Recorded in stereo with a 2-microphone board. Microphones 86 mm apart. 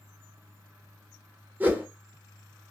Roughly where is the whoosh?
Right.